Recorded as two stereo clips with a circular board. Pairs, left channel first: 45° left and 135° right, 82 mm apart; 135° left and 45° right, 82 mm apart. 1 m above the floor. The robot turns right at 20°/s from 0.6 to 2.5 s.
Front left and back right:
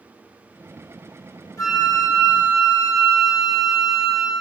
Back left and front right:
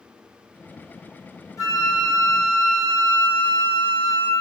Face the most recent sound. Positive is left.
turn(degrees=110)